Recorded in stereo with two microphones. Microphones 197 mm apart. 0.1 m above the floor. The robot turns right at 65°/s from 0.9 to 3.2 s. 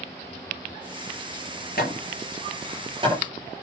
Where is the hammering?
55° left (ahead or behind), 8 m; by 3.6 s 35° right (ahead or behind), 8 m.